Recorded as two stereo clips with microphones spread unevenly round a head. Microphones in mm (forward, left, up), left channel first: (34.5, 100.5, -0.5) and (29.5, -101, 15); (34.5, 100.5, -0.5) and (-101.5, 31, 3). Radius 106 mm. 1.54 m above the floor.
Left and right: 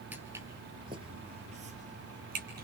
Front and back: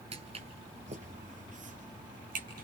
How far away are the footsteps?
About 1.9 m.